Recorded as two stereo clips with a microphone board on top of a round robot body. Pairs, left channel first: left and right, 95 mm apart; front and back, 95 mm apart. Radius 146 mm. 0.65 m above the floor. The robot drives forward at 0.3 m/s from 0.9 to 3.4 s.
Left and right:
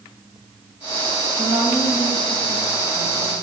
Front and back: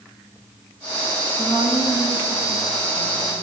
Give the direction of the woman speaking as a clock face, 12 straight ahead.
4 o'clock.